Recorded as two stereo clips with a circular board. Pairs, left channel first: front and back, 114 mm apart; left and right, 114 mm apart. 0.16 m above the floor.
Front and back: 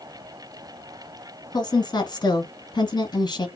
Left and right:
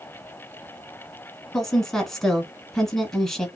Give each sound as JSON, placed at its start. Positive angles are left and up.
{"t": 1.5, "sound": "a woman speaking", "azimuth_deg": 5, "distance_m": 1.3}